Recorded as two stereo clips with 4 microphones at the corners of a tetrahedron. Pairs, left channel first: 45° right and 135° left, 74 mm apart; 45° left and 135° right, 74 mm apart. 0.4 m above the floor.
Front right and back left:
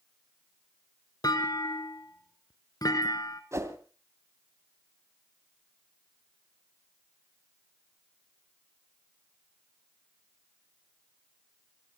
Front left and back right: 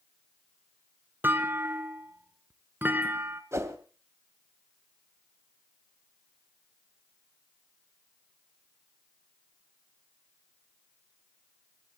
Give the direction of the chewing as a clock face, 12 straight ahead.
No chewing in this recording.